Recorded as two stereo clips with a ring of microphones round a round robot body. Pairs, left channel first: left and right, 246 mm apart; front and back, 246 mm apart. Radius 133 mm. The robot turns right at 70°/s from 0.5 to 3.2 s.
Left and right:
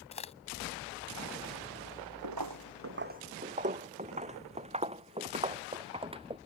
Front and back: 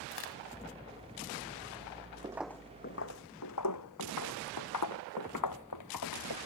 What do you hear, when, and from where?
0.1 s a crack: 25° left
2.2 s footsteps: 105° right; by 6.4 s 20° right